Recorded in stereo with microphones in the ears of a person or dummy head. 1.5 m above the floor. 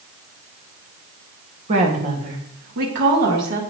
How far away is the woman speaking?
About 2 m.